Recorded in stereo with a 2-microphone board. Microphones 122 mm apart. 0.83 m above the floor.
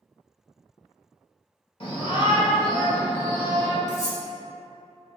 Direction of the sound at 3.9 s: 75° left (ahead or behind).